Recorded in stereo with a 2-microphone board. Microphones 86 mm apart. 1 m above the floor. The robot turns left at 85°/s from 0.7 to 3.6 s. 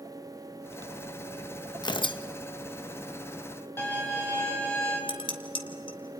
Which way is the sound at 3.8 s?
30° left (ahead or behind).